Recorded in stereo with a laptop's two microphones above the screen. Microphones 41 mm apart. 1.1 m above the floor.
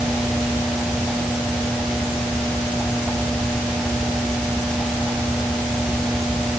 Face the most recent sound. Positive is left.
No sound to turn to.